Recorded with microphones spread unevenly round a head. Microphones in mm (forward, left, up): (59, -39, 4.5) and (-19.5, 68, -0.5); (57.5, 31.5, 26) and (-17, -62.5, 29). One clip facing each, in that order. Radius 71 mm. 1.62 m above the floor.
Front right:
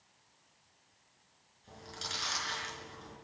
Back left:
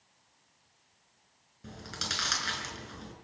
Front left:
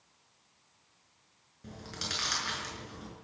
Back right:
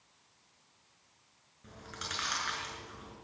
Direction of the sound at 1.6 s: 115° left.